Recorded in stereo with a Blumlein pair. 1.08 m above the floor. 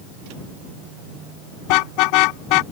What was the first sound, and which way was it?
A car horn, 45° left.